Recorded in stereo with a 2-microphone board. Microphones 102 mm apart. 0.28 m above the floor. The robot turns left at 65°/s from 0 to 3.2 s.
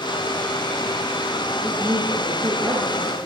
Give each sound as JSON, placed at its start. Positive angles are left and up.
{"t": 1.6, "sound": "a woman speaking", "azimuth_deg": -55, "distance_m": 7.0}